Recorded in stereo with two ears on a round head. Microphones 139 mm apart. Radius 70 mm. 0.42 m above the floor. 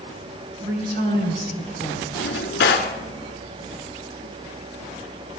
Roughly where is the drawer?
Left.